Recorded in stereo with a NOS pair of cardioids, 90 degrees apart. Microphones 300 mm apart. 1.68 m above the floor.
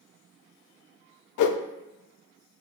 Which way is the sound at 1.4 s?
65° left.